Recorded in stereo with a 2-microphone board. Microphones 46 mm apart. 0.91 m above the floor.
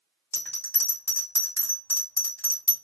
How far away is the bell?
About 1.1 m.